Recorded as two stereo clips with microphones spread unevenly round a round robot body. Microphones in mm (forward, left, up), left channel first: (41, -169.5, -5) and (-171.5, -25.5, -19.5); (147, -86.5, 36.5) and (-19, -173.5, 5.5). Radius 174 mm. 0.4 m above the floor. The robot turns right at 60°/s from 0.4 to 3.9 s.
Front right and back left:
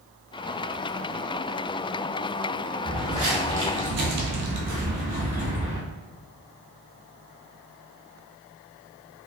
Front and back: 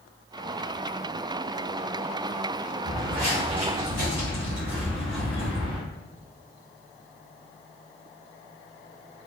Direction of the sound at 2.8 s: 115° left.